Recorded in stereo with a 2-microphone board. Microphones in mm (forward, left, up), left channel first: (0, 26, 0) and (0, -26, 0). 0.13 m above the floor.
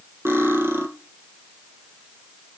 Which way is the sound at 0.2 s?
55° right (ahead or behind).